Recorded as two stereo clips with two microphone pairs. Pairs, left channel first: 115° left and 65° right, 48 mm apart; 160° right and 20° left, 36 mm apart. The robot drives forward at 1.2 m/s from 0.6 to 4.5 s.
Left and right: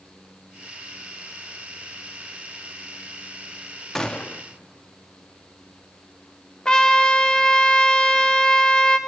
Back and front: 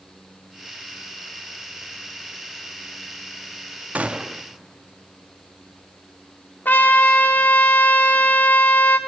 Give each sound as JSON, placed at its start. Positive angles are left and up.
{"t": 4.0, "sound": "a gunshot", "azimuth_deg": 40, "distance_m": 0.6}
{"t": 6.7, "sound": "a trumpet", "azimuth_deg": -175, "distance_m": 1.2}